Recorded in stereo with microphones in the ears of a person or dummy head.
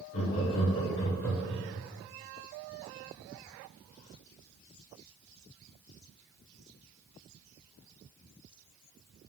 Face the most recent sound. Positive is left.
turn(degrees=5)  # may be behind; listen again after turning